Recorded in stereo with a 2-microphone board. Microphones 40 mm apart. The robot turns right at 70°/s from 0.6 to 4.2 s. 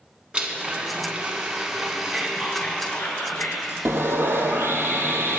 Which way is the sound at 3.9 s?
70° right (ahead or behind).